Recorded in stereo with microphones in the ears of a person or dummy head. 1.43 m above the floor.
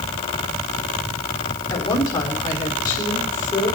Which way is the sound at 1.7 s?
25° left (ahead or behind).